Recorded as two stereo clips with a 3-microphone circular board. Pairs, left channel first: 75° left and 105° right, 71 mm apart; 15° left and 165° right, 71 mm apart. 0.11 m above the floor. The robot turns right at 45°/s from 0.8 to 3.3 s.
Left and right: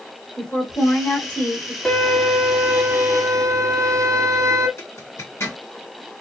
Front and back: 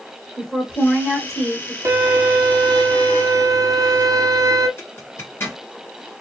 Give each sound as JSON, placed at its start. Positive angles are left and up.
{"t": 0.4, "sound": "a woman speaking", "azimuth_deg": 85, "distance_m": 1.6}
{"t": 1.9, "sound": "a violin", "azimuth_deg": 155, "distance_m": 1.0}
{"t": 4.8, "sound": "a zipper", "azimuth_deg": 50, "distance_m": 2.0}